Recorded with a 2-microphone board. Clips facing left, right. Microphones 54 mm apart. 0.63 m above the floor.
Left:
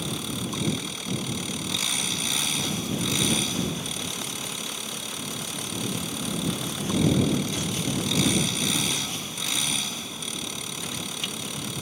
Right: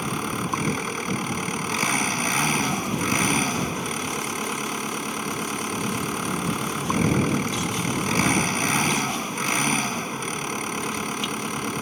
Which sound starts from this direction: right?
An engine running, at 0.0 s.